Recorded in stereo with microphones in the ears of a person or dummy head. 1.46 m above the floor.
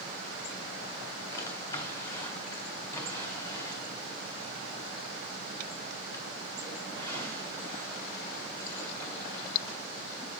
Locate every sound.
1.3 s a drawer: 15° left (ahead or behind), 1.9 m